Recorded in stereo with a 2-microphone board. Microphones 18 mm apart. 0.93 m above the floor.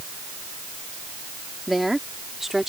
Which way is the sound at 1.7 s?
10° right (ahead or behind).